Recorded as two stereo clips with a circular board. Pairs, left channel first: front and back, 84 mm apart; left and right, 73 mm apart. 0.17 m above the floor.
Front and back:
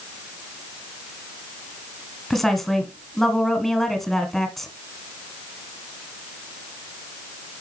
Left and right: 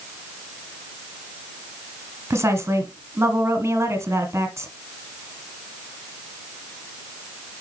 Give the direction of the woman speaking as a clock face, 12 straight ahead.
3 o'clock.